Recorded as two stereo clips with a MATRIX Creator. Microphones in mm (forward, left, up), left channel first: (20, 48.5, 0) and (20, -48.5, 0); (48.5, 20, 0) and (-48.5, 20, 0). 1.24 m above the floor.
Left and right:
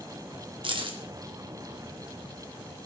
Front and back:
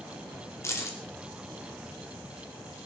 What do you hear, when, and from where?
0.6 s keys jangling: 60° right, 2 m